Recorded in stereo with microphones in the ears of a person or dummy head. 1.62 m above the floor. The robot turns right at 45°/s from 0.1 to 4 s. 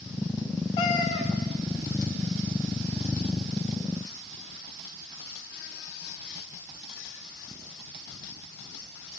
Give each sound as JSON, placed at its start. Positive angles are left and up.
{"t": 0.8, "sound": "a cat meowing", "side_deg": 30, "distance_m": 1.1}